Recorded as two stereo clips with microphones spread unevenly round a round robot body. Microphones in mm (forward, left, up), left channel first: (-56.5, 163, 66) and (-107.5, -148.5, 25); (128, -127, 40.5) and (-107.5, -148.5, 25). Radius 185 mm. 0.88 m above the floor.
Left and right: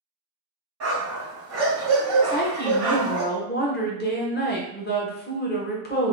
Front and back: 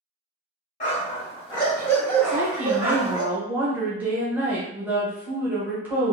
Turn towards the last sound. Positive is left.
turn(degrees=115)